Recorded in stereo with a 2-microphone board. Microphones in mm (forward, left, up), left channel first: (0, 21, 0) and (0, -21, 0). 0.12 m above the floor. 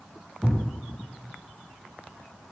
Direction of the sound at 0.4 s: 5° right (ahead or behind).